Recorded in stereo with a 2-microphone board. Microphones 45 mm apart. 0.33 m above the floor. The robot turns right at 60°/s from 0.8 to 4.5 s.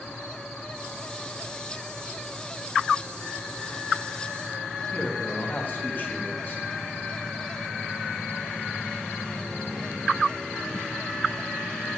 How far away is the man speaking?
About 2 m.